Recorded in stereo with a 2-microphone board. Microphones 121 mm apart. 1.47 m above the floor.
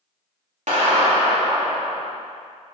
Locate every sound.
0.7 s a clap: 85° right, 3 m